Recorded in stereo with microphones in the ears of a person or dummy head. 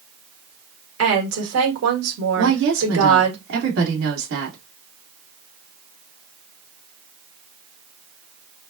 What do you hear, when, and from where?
1.0 s a woman speaking: 70° right (ahead or behind), 1.7 m
2.4 s a woman speaking: 60° right (ahead or behind), 1.8 m